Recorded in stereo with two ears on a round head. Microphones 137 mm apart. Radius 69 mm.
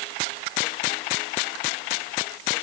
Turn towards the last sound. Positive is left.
No sound to turn to.